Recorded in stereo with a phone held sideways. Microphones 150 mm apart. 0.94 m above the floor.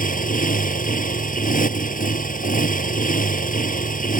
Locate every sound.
0.0 s a motorcycle: 65° left (ahead or behind)